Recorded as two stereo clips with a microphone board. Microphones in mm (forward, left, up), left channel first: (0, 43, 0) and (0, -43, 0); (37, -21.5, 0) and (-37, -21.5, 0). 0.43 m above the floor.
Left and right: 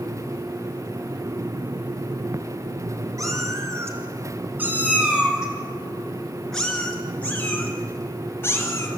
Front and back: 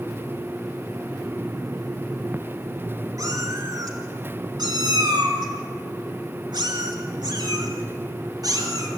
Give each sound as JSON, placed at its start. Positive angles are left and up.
{"t": 3.2, "sound": "a cat meowing", "azimuth_deg": -140, "distance_m": 2.5}